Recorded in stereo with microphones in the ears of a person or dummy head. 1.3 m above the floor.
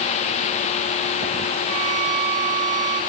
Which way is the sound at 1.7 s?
60° right (ahead or behind).